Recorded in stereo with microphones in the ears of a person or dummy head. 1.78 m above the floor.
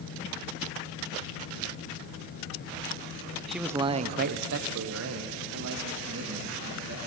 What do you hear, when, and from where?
3.5 s a man speaking: 5° left (ahead or behind), 1.1 m; by 7.0 s 75° right (ahead or behind), 4 m